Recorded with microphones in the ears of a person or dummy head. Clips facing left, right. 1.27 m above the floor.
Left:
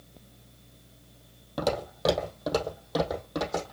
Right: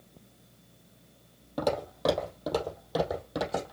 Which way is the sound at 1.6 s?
5° left (ahead or behind).